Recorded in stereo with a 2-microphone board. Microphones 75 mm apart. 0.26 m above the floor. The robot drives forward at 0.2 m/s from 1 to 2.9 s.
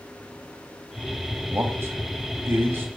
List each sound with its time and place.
1.5 s a man speaking: 35° right (ahead or behind), 1.2 m; by 2.9 s 30° right (ahead or behind), 1.3 m